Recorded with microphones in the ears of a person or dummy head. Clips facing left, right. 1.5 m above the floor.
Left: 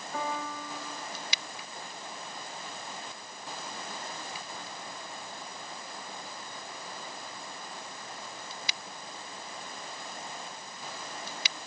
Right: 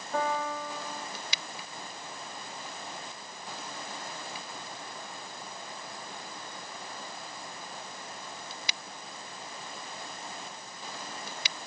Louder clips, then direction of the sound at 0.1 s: Right 5 dB; 50° right (ahead or behind).